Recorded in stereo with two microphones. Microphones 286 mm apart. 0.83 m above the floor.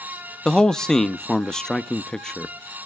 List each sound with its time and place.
0.5 s a man speaking: centre (ahead or behind), 0.6 m